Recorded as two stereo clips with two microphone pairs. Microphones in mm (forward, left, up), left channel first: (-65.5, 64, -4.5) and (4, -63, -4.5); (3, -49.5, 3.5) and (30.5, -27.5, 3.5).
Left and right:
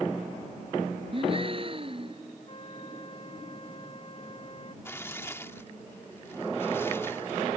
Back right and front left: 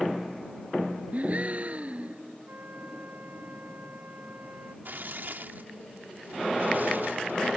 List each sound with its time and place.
1.1 s a gasp: 10° right
2.5 s a flute: 65° left
4.8 s tearing paper: 50° left